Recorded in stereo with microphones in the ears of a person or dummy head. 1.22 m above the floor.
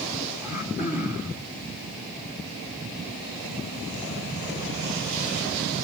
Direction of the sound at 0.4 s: 5° right (ahead or behind).